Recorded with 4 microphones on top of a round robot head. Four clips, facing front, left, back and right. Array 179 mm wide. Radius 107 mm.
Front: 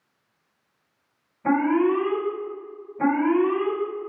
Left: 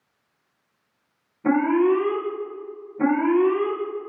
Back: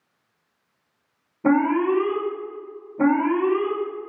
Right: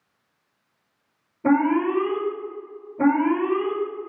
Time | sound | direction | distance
1.4 | an alarm | 165° right | 2.0 m